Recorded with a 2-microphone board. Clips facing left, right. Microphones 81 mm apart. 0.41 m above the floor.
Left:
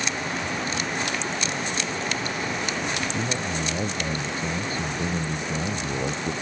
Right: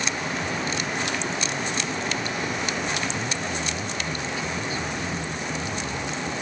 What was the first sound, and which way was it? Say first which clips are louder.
A man speaking: left 1 dB; 45° left (ahead or behind).